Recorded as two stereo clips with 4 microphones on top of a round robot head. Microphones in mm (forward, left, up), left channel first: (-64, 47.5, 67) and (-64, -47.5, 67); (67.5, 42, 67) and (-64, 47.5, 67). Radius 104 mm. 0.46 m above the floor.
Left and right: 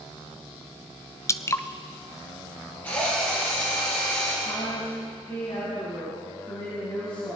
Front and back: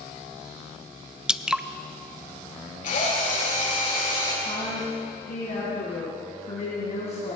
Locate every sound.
1.3 s dripping: 100° left, 0.7 m
2.8 s a drill: 15° left, 5.5 m
4.5 s a woman speaking: 30° left, 3.5 m